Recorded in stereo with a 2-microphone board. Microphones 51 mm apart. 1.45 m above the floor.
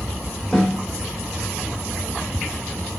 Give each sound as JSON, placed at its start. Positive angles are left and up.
{"t": 0.5, "sound": "a snare drum", "side_deg": 10, "distance_m": 1.2}